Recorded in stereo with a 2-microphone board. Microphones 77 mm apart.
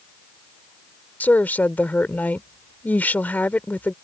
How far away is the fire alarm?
No fire alarm in this recording.